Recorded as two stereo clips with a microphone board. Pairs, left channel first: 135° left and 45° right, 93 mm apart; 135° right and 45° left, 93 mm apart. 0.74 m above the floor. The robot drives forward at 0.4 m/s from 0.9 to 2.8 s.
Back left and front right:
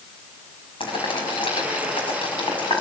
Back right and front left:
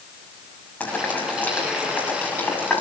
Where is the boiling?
150° left, 6 m; by 2.8 s 155° left, 6.5 m.